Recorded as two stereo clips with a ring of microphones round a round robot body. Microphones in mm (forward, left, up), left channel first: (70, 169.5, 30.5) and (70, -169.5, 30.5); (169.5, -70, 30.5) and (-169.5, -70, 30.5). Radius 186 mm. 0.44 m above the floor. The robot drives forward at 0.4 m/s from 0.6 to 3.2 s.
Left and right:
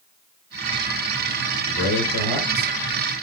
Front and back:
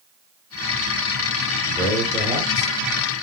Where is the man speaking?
75° left, 1.2 m; by 2.7 s 105° left, 1.2 m.